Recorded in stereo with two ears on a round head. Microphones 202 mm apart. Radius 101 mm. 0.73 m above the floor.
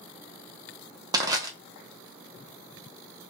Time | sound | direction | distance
1.1 | crushing | 15° right (ahead or behind) | 0.8 m